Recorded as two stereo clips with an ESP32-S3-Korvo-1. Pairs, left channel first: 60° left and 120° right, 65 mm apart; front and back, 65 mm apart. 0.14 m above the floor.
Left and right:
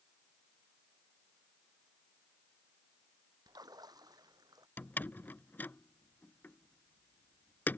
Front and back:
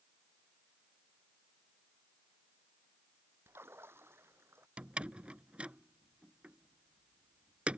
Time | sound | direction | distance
3.5 | a splash | 130° right | ?
4.8 | a door slam | 110° left | ?